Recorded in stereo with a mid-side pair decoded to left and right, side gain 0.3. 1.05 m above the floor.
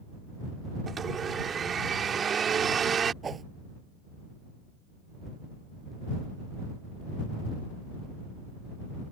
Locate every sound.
0.9 s a blender: 65° right
3.2 s a whoosh: 60° right